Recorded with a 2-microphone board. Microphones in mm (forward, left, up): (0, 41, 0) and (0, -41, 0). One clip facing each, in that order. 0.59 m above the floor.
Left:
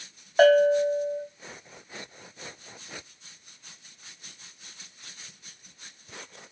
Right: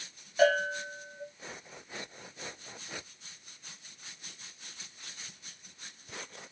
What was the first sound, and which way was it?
A bell, 60° left (ahead or behind).